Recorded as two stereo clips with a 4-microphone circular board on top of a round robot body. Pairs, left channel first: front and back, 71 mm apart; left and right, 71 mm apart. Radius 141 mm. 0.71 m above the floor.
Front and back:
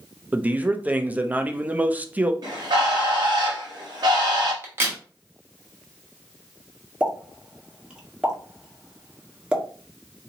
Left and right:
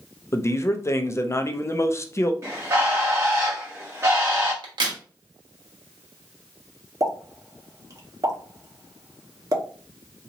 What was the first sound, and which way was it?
A man speaking, 120° left.